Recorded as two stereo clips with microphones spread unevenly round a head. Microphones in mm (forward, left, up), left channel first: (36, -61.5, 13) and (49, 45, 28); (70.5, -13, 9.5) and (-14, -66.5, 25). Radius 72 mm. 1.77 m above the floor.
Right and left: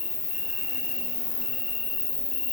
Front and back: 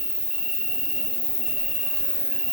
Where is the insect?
65° right, 3 m.